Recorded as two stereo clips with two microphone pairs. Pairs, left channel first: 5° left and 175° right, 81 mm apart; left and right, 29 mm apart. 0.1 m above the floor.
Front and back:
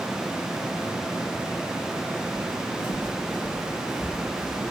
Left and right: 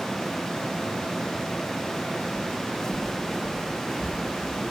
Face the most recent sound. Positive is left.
turn(degrees=-25)